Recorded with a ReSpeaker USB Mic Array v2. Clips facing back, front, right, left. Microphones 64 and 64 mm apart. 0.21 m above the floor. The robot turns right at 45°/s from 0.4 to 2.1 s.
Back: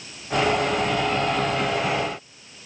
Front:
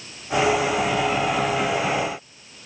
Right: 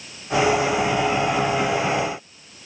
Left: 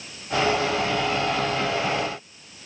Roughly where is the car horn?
I don't hear a car horn.